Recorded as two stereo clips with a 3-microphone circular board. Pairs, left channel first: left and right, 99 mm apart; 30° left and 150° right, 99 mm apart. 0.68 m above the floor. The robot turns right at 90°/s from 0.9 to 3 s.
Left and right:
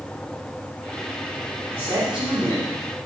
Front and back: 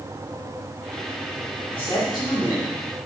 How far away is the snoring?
I don't hear snoring.